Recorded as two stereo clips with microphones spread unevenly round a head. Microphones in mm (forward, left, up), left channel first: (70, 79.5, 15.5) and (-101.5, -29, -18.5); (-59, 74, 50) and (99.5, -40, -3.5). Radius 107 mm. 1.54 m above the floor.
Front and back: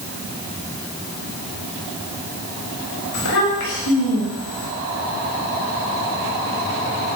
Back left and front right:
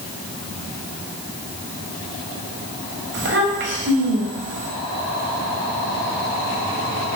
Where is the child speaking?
5° right, 6 m.